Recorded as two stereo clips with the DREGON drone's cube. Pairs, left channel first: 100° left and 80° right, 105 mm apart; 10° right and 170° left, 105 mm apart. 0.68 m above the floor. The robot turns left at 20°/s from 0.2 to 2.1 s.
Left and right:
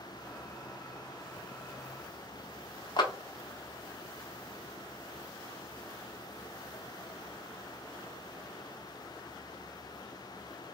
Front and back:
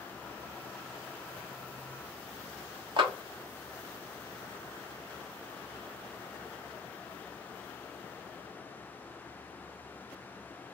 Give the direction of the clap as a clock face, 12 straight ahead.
7 o'clock.